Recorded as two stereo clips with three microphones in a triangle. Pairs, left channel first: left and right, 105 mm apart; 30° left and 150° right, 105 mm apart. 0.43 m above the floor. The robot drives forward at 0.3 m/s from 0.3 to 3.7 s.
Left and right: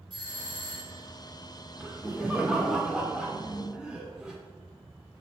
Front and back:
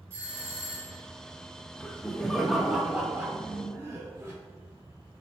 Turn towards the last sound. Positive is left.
turn(degrees=-160)